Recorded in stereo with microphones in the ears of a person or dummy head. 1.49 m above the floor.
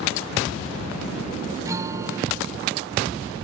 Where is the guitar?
20° right (ahead or behind).